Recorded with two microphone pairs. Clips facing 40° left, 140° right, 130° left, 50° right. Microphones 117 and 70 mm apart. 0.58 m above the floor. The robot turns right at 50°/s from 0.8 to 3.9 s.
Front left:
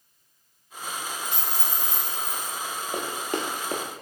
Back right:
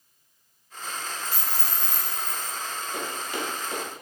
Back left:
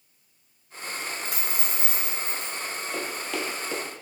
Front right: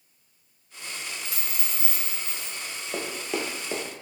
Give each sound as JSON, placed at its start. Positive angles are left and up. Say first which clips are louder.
{"t": 1.2, "sound": "a dropped coin", "louder": "front left 1 dB, back left 4 dB", "azimuth_deg": 95, "distance_m": 0.9}
{"t": 2.9, "sound": "running footsteps", "louder": "front left 4 dB, front right 3 dB", "azimuth_deg": 10, "distance_m": 0.9}